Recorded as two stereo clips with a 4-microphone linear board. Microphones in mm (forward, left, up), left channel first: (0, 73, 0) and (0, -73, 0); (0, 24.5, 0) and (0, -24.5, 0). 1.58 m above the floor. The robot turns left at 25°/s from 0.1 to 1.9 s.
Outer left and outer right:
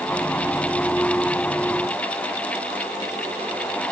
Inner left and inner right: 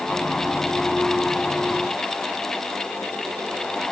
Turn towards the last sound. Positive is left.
No sound to turn to.